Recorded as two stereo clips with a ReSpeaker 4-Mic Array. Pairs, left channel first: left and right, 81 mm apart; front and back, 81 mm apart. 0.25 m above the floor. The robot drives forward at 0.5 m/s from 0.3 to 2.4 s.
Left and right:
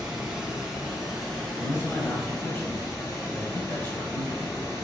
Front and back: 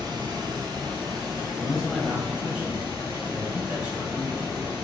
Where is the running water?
170° right, 1.0 m; by 4.8 s 175° right, 2 m.